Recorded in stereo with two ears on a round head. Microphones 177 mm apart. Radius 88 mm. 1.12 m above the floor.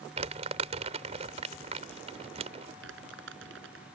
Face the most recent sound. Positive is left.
turn(degrees=-75)  # may be behind; listen again after turning